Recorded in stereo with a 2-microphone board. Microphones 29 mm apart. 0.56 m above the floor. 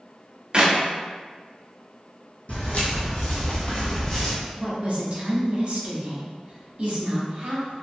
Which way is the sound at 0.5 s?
35° right (ahead or behind).